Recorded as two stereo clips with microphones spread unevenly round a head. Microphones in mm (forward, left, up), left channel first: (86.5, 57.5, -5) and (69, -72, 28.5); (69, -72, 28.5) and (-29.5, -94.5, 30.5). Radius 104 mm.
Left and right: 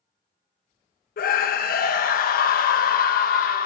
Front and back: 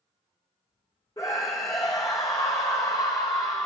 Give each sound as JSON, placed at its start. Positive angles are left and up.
{"t": 1.2, "sound": "a scream", "azimuth_deg": 85, "distance_m": 0.5}